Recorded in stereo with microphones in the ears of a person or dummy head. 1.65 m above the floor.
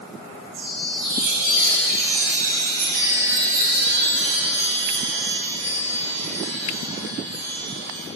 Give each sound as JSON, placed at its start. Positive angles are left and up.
{"t": 0.5, "sound": "a chime", "side_deg": -50, "distance_m": 1.1}